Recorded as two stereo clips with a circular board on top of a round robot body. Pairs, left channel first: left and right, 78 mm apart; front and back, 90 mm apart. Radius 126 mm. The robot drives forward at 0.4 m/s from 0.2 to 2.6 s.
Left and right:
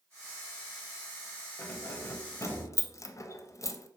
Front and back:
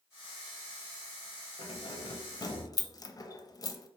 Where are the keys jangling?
20° left, 0.8 m; by 3.9 s 45° left, 0.5 m.